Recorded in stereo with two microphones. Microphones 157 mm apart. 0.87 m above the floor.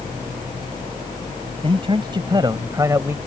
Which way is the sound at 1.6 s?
35° right (ahead or behind).